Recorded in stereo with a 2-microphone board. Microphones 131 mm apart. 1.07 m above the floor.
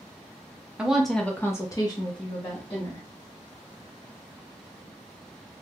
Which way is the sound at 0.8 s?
5° right (ahead or behind).